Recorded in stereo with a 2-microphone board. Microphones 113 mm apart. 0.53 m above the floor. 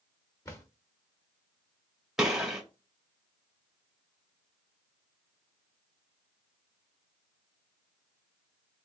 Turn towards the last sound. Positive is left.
turn(degrees=-5)  # may be behind; listen again after turning